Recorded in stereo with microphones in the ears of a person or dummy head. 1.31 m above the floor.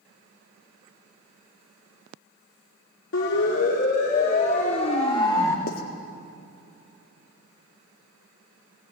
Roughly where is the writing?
Left.